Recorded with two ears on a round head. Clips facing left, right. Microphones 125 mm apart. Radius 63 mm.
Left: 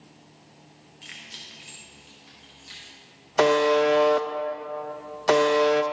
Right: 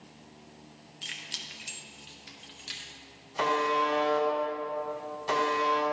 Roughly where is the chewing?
I don't hear chewing.